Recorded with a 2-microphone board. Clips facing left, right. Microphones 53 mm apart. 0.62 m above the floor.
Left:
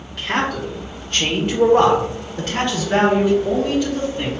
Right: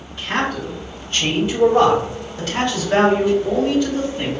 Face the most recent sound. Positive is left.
turn(degrees=5)  # may be behind; listen again after turning